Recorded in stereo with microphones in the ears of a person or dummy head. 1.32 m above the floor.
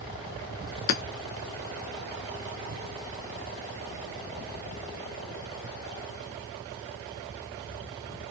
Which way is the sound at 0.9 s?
45° left (ahead or behind).